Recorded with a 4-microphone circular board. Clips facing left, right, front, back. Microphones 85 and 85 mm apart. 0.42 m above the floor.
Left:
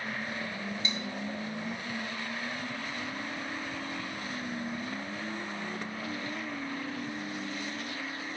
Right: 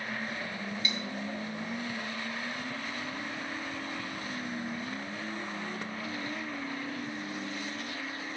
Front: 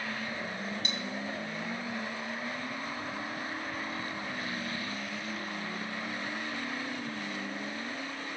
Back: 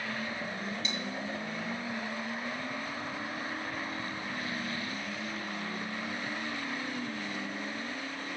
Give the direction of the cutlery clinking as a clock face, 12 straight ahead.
11 o'clock.